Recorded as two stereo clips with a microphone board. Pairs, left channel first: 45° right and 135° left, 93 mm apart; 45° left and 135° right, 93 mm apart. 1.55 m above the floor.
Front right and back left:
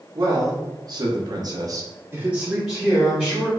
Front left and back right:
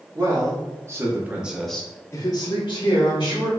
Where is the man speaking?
Straight behind, 1.3 m; by 3.5 s 30° left, 1.2 m.